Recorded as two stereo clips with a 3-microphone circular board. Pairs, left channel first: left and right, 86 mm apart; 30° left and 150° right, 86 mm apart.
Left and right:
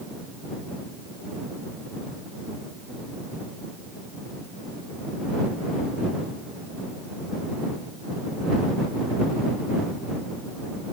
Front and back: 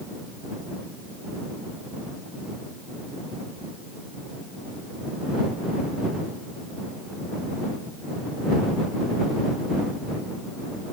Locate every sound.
Only background noise.